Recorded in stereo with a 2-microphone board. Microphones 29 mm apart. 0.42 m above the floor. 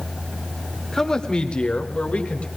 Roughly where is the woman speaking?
Centre.